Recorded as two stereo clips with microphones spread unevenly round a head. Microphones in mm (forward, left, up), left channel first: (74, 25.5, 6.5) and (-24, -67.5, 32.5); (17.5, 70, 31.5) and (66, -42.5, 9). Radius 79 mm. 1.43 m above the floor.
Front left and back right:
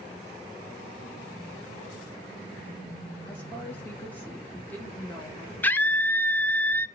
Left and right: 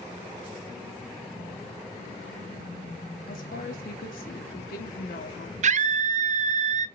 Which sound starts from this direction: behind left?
A woman speaking, at 3.3 s.